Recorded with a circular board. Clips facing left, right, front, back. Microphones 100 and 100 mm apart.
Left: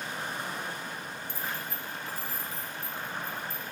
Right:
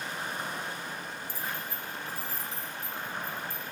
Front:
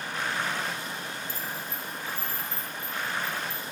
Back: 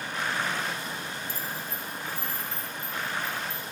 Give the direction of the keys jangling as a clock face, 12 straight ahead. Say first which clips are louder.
Left 1 dB, even; 8 o'clock.